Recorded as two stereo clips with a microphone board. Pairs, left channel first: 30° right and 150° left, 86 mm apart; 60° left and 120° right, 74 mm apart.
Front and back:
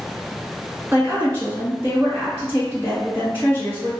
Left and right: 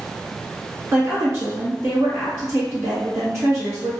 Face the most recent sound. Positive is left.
turn(degrees=-160)